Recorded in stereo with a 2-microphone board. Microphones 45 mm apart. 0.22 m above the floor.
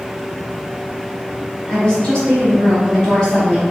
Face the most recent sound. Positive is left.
turn(degrees=20)  # may be behind; listen again after turning